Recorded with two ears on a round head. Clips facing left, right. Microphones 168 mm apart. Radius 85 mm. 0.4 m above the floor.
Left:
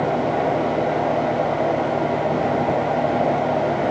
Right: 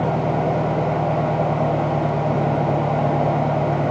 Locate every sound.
0.0 s an engine running: 55° right (ahead or behind)